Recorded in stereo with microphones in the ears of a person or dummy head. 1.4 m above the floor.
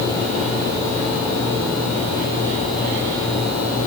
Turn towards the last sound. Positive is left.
No sound to turn to.